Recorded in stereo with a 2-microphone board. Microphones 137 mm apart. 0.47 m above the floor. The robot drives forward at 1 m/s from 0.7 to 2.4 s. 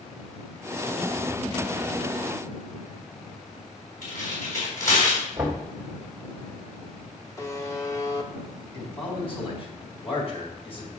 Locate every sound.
4.0 s tearing paper: 75° left (ahead or behind), 4 m
5.4 s knocking: 15° right (ahead or behind), 2.5 m
7.4 s a buzzer: 25° left (ahead or behind), 0.8 m
8.7 s a man speaking: 45° left (ahead or behind), 3.5 m